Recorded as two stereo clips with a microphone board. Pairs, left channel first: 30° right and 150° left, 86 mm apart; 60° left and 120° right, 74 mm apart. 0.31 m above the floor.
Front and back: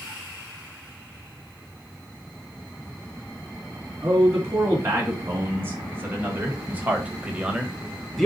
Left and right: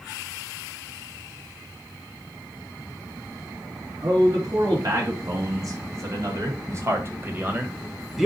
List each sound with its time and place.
4.0 s a man speaking: 150° right, 4 m; by 8.3 s 55° right, 1.3 m